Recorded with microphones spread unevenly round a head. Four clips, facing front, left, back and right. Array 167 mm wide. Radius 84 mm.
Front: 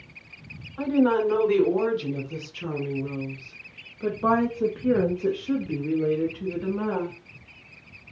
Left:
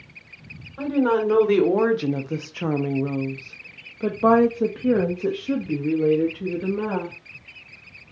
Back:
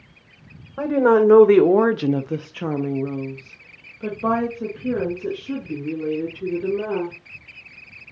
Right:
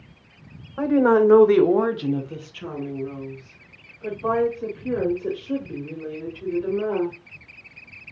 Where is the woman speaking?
160° right, 1.1 m; by 7.2 s 60° left, 2.5 m.